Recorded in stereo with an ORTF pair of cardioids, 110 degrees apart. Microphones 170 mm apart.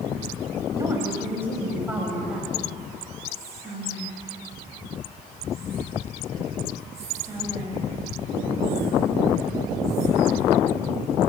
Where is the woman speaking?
20° right, 5 m; by 2.5 s 5° right, 5 m.